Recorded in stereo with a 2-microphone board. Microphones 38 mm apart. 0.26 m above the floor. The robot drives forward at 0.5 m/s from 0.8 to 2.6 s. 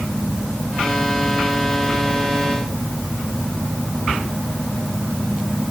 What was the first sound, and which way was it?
Only background noise.